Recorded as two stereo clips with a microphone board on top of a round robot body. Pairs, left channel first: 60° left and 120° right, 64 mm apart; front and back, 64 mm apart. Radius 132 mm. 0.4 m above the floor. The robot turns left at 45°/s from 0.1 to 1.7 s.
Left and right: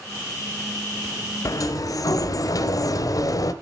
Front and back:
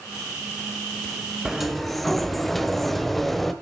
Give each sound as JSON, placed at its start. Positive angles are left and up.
{"t": 1.4, "sound": "a sliding door", "azimuth_deg": 100, "distance_m": 1.0}